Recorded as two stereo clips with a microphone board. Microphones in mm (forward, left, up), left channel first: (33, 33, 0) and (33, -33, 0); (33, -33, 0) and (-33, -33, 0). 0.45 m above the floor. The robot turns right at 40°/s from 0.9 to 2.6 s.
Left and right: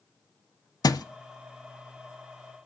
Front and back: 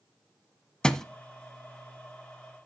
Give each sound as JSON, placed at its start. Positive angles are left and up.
{"t": 0.8, "sound": "a thud", "azimuth_deg": 75, "distance_m": 0.8}